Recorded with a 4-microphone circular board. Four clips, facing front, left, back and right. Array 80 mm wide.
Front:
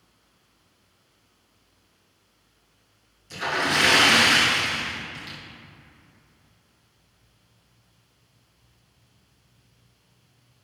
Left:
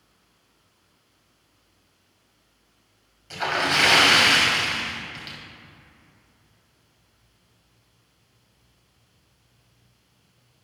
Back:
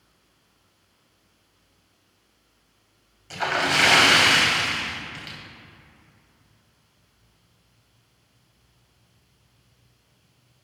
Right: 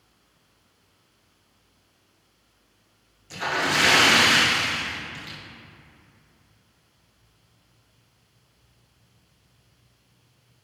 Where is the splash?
155° left, 1.6 m.